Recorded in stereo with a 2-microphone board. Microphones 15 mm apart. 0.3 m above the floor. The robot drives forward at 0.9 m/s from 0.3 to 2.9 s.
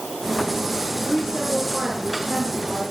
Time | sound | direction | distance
1.1 | a woman speaking | 50° right (ahead or behind) | 4.5 m